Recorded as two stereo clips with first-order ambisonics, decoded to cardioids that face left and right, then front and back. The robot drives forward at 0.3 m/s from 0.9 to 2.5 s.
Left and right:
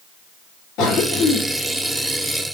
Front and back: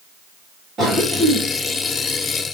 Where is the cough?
115° left, 2 m; by 2.5 s 130° left, 2.5 m.